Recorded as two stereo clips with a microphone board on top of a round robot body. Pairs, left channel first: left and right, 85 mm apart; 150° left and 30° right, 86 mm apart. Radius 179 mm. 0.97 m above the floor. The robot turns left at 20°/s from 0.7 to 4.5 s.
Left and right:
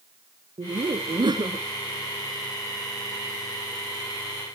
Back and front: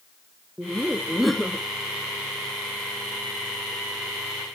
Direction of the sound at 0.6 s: 110° right.